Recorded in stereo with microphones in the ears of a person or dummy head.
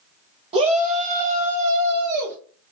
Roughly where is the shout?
Right.